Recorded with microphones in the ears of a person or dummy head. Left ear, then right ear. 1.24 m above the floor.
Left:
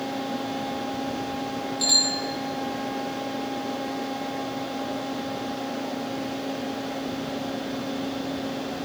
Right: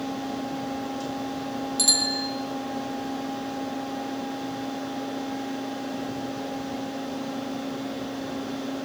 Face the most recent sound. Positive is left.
turn(degrees=-80)